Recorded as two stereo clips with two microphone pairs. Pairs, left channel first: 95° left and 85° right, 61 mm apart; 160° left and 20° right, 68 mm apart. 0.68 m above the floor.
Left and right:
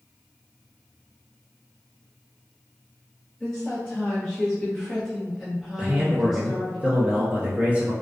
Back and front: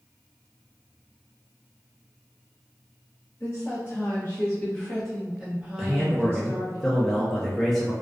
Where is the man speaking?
120° right, 0.7 m.